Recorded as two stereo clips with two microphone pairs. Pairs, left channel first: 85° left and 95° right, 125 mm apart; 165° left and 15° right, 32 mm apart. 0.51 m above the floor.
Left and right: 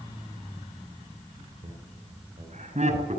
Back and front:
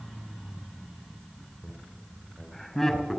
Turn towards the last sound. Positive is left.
turn(degrees=-110)